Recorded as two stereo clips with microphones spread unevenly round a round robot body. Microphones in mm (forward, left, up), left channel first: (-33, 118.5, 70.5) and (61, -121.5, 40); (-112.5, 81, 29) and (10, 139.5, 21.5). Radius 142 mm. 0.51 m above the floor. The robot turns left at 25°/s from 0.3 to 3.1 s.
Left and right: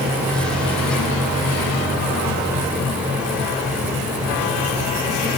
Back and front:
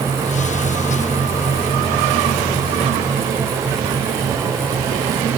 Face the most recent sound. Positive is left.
No sound to turn to.